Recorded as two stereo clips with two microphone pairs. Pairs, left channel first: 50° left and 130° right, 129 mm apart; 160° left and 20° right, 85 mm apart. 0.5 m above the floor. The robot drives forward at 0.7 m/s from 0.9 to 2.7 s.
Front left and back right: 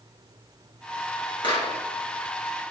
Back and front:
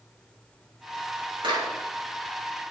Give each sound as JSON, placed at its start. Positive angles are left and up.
{"t": 1.4, "sound": "a clap", "azimuth_deg": 0, "distance_m": 7.5}